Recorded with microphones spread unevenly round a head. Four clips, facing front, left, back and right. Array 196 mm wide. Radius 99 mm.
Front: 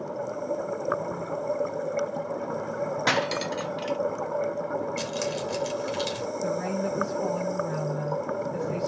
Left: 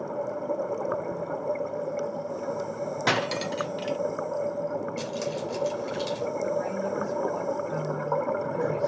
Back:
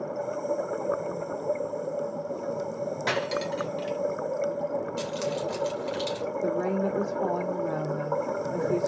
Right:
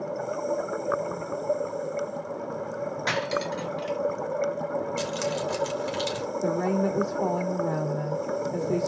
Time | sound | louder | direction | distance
3.1 | cutlery clinking | left 1 dB, front 1 dB | 60° left | 0.8 m
5.0 | keys jangling | right 2 dB, even | 85° right | 2.5 m
6.4 | a woman speaking | right 6 dB, back 2 dB | 90° right | 3.5 m